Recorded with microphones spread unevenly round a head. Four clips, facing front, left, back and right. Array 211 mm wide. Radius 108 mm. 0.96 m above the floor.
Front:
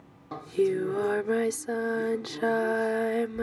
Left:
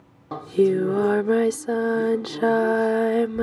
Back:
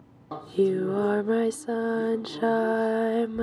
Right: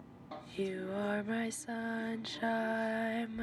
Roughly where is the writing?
I don't hear writing.